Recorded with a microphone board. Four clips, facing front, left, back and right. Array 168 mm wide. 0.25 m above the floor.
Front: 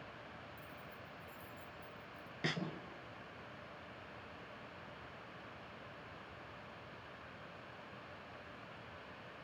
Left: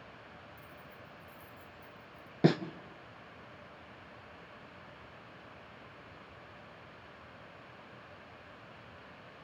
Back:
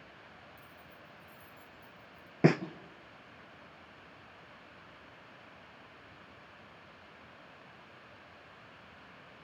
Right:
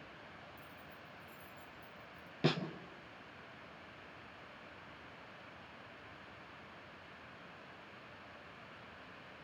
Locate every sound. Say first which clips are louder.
0.6 s keys jangling: left 2 dB, front 2 dB; 65° left, 3 m
2.4 s a snare drum: left 8 dB, back 15 dB; 150° left, 0.8 m